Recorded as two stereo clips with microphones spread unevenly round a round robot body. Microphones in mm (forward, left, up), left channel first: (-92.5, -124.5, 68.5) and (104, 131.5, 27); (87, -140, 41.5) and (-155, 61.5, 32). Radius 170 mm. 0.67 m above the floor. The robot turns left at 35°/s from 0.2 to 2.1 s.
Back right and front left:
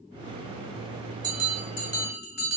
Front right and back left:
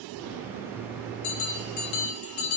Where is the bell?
25° right, 1.2 m; by 2.6 s 55° right, 1.2 m.